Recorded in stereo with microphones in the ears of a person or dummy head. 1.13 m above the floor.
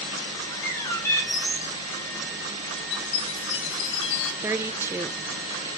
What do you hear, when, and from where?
0.5 s a bird: 15° left (ahead or behind), 5 m
2.9 s a chime: 65° left (ahead or behind), 2 m
4.4 s a woman speaking: 10° right (ahead or behind), 0.7 m